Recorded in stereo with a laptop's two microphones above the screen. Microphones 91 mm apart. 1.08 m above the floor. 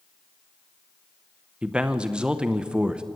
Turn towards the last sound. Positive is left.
turn(degrees=-10)  # may be behind; listen again after turning